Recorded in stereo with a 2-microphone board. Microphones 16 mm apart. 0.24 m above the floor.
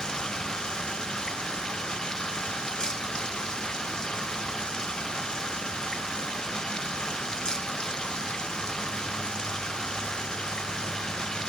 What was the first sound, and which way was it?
Running water, 45° left (ahead or behind).